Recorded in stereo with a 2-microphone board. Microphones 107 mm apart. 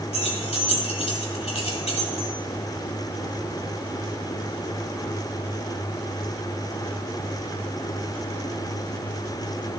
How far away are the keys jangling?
About 2 m.